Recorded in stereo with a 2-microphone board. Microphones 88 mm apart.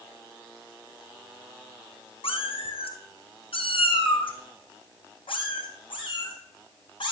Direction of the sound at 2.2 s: 90° left.